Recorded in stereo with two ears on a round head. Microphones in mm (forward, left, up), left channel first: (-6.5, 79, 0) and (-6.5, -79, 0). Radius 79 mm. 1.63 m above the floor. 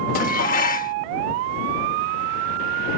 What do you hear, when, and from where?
0.1 s dishes clattering: 50° left (ahead or behind)